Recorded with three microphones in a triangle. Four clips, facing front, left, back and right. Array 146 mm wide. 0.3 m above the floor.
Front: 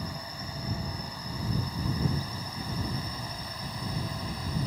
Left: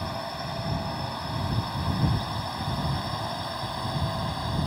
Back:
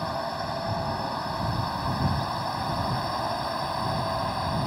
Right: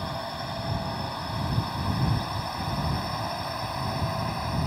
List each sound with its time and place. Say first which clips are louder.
0.0 s a drone: even, back 10 dB; straight behind; by 4.7 s 175° right